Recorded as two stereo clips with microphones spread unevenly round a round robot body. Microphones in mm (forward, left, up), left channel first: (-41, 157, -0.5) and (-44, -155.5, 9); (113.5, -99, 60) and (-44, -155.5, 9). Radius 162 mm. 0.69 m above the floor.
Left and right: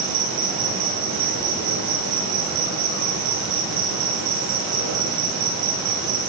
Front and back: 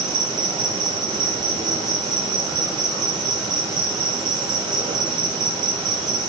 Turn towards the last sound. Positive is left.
turn(degrees=-105)